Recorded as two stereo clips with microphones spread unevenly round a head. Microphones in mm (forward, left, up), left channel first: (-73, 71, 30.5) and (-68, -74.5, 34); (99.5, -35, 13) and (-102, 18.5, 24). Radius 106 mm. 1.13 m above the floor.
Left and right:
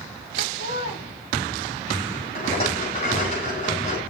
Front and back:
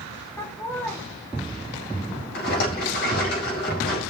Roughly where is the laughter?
Ahead left.